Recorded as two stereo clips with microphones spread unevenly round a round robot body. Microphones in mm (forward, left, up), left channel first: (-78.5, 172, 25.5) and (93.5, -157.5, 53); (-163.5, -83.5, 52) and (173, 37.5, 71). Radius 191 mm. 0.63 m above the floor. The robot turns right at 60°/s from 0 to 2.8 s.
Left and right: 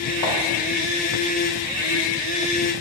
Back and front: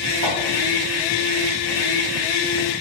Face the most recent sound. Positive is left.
turn(degrees=-135)